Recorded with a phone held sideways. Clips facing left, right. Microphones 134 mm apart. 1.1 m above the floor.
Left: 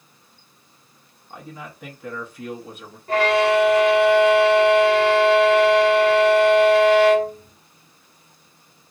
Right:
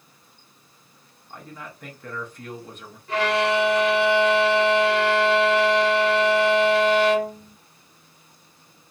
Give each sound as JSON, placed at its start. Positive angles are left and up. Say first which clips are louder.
{"t": 1.3, "sound": "a man speaking", "louder": "left 2 dB", "side_deg": 5, "distance_m": 0.7}
{"t": 3.1, "sound": "a violin", "louder": "left 4 dB", "side_deg": 50, "distance_m": 1.0}